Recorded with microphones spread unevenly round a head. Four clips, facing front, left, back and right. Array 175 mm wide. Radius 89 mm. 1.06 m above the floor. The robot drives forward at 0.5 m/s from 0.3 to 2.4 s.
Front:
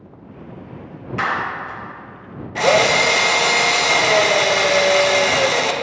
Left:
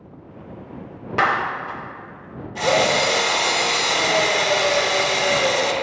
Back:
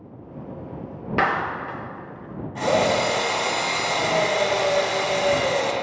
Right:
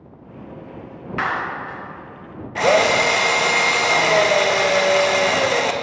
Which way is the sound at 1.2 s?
145° left.